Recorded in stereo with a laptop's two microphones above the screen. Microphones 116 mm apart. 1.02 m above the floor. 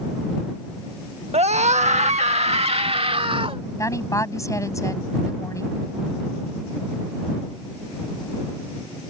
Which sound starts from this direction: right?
A scream, at 1.3 s.